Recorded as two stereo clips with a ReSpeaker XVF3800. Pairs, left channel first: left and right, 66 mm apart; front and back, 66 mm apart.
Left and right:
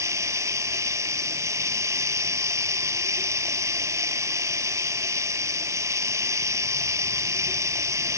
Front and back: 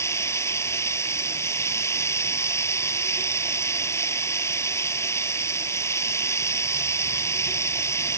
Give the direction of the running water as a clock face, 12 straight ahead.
2 o'clock.